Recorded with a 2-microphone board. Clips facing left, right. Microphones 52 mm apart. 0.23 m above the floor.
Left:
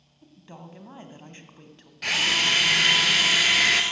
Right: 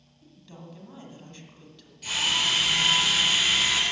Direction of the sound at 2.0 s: 70° left (ahead or behind).